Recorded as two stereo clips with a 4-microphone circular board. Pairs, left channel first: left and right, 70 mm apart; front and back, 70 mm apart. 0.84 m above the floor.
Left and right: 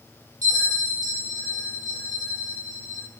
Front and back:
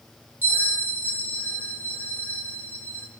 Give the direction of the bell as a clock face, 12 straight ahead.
4 o'clock.